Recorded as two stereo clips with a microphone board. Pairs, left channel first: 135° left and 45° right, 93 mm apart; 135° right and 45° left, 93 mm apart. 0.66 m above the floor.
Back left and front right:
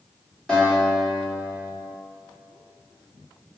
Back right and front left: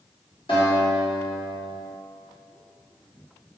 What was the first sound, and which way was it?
A guitar, 145° right.